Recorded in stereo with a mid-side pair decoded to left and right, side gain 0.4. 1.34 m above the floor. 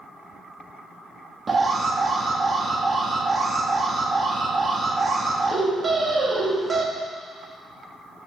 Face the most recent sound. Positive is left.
turn(degrees=-35)